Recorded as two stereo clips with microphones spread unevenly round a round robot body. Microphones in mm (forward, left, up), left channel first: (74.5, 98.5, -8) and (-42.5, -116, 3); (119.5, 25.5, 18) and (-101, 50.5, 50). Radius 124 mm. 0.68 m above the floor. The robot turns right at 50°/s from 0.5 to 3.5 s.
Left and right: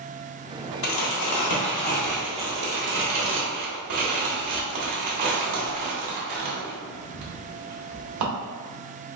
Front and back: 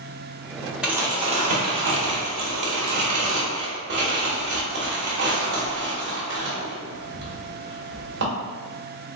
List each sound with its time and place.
0.8 s crumpling: 90° left, 0.9 m; by 8.2 s 140° right, 0.9 m